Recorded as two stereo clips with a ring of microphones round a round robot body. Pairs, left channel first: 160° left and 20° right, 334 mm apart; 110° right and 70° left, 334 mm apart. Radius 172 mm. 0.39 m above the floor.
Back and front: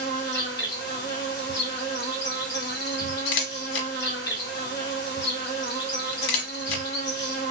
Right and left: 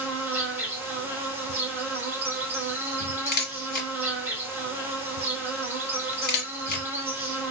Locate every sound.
0.0 s an insect: 145° left, 2.0 m
3.3 s a camera shutter: 175° right, 1.0 m